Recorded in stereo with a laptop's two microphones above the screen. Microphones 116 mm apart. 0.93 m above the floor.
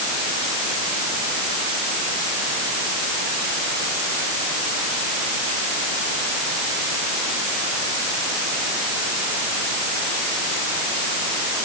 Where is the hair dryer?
No hair dryer in this recording.